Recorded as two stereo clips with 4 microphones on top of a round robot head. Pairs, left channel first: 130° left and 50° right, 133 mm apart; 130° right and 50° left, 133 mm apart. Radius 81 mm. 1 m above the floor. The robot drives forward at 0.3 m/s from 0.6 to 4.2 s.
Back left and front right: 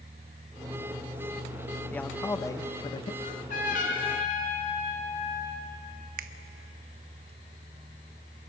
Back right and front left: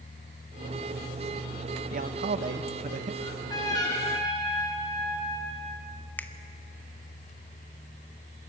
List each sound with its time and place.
1.9 s a man speaking: 50° left, 0.8 m; by 3.1 s 80° left, 0.7 m
3.2 s a trumpet: 165° left, 3 m
6.2 s a finger snap: 55° right, 0.7 m